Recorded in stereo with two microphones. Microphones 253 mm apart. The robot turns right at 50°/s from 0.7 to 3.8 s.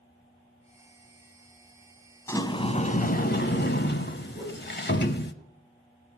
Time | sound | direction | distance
2.3 | a sliding door | 15° left | 0.8 m
4.3 | a whoosh | 5° right (ahead or behind) | 7.5 m